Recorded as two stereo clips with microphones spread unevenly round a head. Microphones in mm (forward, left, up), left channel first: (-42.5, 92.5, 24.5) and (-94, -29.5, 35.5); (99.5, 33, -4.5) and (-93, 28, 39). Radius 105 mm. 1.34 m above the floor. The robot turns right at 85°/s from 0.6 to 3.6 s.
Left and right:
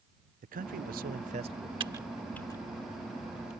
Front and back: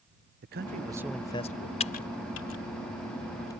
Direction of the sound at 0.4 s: 130° right.